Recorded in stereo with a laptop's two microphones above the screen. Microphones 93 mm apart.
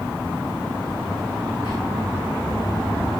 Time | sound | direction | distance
1.6 | whispering | 65° left (ahead or behind) | 2.5 m